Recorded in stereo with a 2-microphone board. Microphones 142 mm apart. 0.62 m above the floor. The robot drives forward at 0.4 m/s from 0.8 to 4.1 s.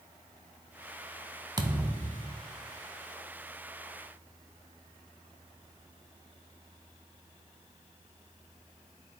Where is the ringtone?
No ringtone in this recording.